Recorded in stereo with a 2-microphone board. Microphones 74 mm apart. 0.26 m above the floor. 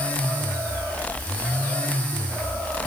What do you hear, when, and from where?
Only background noise.